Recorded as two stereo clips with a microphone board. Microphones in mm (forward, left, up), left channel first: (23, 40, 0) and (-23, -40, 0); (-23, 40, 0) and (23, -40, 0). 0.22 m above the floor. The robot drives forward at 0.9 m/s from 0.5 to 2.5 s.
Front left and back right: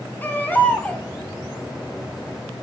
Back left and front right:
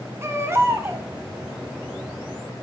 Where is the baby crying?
5° right, 1.6 m; by 1.1 s 10° right, 1.2 m.